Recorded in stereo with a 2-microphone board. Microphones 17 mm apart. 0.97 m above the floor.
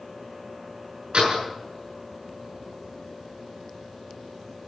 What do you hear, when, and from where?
1.1 s a door slam: 85° right, 7.5 m